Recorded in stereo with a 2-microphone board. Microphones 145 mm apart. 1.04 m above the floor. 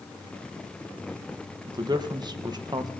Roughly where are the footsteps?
I don't hear footsteps.